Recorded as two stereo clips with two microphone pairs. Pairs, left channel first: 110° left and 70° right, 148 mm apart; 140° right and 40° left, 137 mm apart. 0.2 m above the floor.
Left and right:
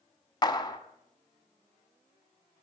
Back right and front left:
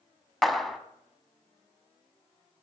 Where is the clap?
135° left, 0.9 m.